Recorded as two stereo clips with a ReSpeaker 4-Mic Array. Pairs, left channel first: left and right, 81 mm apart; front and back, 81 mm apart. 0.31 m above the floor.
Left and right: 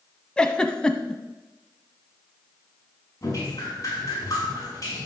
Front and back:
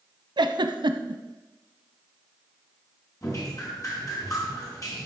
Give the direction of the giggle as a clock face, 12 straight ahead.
6 o'clock.